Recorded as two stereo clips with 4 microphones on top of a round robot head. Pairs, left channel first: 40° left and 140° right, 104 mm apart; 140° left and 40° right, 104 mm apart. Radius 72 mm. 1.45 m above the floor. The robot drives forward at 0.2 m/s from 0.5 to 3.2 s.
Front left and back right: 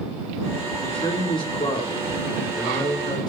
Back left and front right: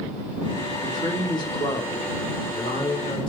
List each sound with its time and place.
0.8 s a man speaking: 85° left, 3.5 m; by 3.3 s 90° left, 3.5 m